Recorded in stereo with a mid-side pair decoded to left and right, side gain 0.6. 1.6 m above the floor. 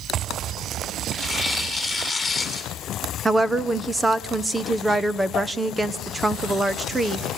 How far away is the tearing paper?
About 6.5 m.